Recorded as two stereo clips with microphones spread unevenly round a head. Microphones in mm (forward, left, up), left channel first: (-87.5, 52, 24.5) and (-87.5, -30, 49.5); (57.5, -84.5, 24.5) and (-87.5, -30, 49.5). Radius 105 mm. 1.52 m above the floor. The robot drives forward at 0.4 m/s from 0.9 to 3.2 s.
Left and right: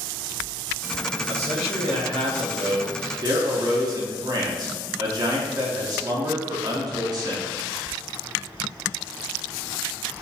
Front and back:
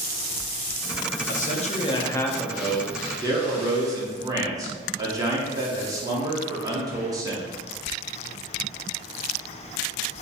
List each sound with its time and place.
1.3 s a man speaking: 55° right, 0.6 m; by 7.4 s 130° right, 0.7 m